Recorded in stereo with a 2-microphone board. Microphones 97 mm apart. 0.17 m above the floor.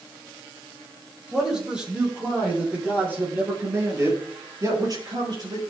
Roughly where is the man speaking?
Centre.